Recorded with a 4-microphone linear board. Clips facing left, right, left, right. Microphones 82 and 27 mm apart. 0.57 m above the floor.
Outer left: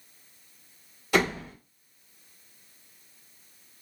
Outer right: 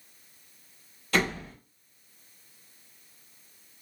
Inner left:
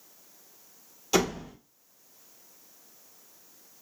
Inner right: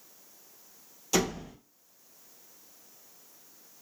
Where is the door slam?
15° left (ahead or behind), 1.4 m.